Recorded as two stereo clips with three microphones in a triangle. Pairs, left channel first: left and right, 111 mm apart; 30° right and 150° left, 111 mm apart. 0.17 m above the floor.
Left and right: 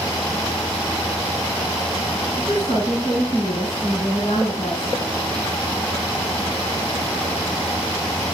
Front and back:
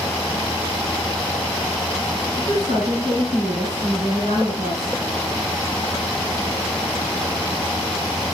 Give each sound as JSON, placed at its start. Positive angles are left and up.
{"t": 2.4, "sound": "a woman speaking", "azimuth_deg": 145, "distance_m": 5.0}